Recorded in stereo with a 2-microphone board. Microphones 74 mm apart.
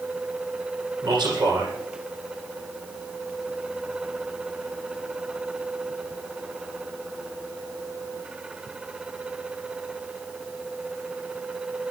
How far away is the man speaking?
About 7.5 m.